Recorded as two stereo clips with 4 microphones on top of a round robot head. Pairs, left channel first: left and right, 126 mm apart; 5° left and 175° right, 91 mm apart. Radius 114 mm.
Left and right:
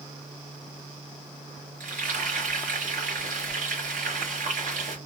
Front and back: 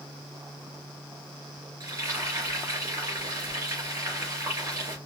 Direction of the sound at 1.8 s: 110° right.